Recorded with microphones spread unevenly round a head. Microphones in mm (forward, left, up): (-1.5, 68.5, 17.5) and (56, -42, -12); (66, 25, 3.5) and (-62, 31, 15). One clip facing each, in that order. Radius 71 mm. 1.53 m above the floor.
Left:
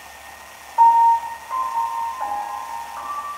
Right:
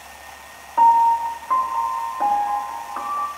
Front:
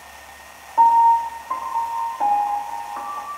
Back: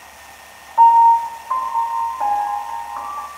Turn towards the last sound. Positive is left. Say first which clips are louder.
# left 1 dB, back 4 dB
turn(degrees=-70)